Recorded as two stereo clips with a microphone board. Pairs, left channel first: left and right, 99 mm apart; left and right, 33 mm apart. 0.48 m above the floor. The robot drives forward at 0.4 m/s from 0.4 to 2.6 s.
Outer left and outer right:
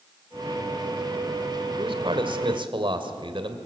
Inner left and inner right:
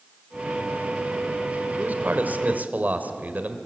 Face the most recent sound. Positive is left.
turn(degrees=-55)  # may be behind; listen again after turning